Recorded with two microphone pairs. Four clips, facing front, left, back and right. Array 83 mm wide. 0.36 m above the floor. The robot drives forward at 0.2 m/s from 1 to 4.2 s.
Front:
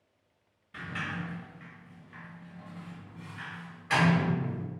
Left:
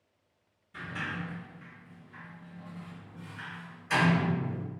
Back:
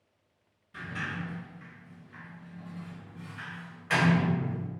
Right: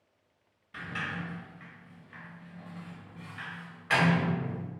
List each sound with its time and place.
0.7 s a sliding door: 60° right, 0.9 m; by 4.7 s 110° right, 0.8 m